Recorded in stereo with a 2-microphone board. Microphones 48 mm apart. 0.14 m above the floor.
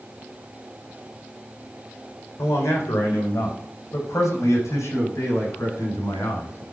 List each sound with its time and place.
2.4 s a man speaking: 65° left (ahead or behind), 7.5 m; by 6.6 s 80° left, 8 m